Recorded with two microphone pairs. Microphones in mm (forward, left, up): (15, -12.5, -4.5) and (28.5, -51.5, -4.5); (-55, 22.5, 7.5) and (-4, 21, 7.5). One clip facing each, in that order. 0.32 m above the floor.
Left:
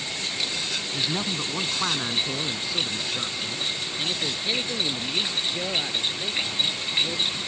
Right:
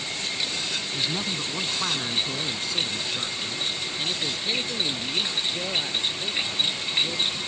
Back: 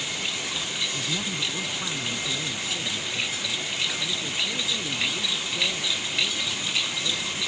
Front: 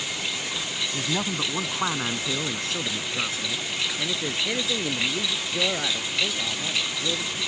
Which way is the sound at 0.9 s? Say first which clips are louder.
Left 2 dB, front 3 dB; 35° left.